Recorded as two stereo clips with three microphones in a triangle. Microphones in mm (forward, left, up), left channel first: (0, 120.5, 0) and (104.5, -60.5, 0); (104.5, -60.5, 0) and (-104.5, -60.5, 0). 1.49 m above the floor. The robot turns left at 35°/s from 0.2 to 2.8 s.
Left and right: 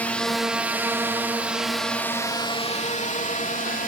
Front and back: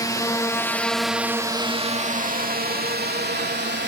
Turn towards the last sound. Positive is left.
turn(degrees=160)